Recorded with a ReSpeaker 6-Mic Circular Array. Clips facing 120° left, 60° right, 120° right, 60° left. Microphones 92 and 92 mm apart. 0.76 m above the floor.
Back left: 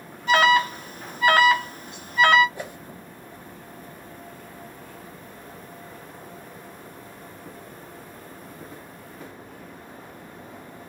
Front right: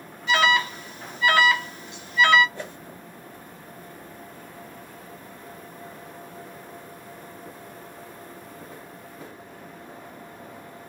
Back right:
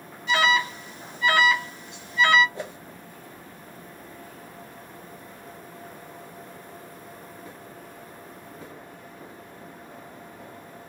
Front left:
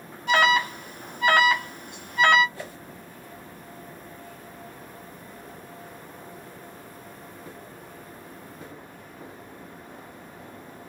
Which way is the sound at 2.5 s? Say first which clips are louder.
Back left 1 dB, back right 3 dB; 170° right.